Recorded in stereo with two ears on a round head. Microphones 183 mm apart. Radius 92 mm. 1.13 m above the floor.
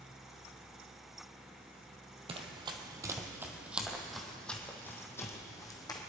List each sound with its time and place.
2.3 s running footsteps: 30° right (ahead or behind), 1.7 m; by 6.0 s 20° left (ahead or behind), 2.5 m